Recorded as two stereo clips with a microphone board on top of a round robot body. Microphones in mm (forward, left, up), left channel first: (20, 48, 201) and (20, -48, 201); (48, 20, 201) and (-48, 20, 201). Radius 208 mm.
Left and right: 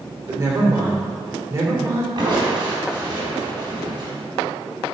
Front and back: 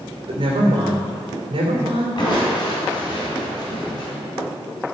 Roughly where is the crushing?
Ahead right.